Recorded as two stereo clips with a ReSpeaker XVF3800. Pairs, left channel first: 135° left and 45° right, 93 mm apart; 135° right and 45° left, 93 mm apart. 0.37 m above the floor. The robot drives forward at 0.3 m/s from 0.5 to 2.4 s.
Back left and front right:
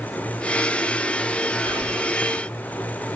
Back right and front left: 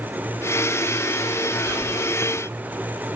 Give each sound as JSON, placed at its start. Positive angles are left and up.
{"t": 1.6, "sound": "whispering", "azimuth_deg": -50, "distance_m": 1.7}